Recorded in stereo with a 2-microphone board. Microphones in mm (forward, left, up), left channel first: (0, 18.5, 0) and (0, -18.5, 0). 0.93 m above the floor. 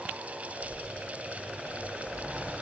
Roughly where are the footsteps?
Left.